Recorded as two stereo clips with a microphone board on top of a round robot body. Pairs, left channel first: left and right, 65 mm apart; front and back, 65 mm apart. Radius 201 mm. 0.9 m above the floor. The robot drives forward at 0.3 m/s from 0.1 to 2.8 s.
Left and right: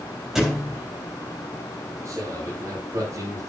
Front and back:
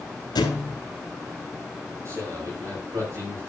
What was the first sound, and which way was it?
A thud, 5° right.